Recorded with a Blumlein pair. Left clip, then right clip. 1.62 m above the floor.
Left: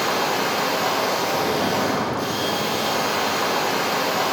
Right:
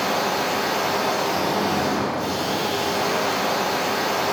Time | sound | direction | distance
0.0 | a machine running | 60° left | 2.5 m